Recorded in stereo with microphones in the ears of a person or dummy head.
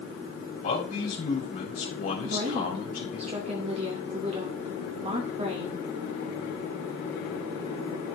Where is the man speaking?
50° left (ahead or behind), 4 m.